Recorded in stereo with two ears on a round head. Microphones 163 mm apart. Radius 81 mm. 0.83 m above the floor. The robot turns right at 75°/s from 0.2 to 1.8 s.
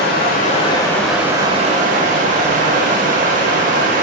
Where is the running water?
110° left, 0.9 m; by 4.0 s 130° right, 0.9 m.